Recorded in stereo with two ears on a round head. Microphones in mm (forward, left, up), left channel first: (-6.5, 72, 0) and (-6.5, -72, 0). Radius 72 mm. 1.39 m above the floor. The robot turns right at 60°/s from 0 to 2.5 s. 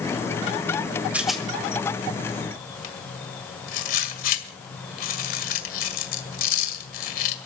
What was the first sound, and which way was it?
A rattle, 10° right (ahead or behind).